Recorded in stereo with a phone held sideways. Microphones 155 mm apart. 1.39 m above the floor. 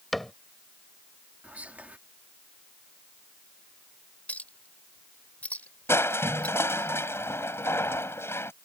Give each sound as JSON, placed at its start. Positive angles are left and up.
{"t": 0.1, "sound": "a cupboard door", "side_deg": 0}
{"t": 1.4, "sound": "whispering", "side_deg": -10}
{"t": 4.3, "sound": "a clink", "side_deg": 10}
{"t": 5.9, "sound": "crushing", "side_deg": 15}